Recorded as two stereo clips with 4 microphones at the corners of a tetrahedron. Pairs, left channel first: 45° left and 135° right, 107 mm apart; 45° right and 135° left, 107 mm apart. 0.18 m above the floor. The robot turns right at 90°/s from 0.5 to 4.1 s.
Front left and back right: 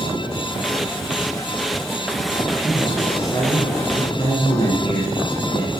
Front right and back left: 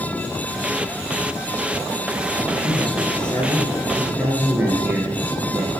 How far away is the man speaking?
About 1.9 m.